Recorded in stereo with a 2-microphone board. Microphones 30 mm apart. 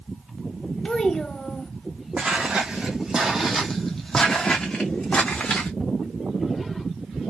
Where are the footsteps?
50° right (ahead or behind), 1.1 m; by 5.7 s 50° left (ahead or behind), 1.4 m.